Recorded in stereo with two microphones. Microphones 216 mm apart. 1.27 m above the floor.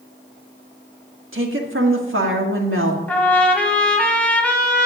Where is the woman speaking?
65° right (ahead or behind), 1.6 m.